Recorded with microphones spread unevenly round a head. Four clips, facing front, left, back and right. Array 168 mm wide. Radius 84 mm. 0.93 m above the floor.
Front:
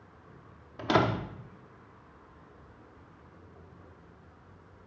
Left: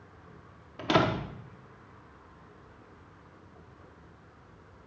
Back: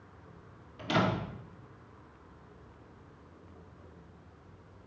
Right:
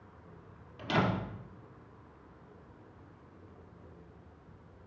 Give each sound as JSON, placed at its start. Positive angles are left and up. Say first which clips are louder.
{"t": 0.8, "sound": "a door slam", "louder": "left 5 dB, front 4 dB", "azimuth_deg": 45, "distance_m": 1.2}